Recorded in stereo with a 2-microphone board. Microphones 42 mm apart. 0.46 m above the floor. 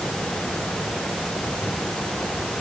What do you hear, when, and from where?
Only background noise.